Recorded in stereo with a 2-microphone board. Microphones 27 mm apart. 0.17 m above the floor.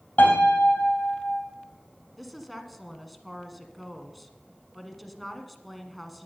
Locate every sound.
0.2 s a piano: 80° left, 3.5 m
2.2 s a woman speaking: centre (ahead or behind), 1.5 m